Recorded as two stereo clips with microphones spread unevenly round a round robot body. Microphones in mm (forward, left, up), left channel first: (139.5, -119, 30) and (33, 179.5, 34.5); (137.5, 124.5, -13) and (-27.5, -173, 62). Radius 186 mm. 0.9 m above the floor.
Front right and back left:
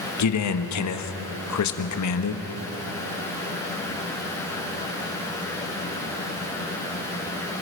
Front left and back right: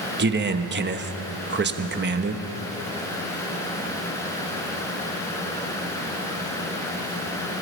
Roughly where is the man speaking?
Ahead right.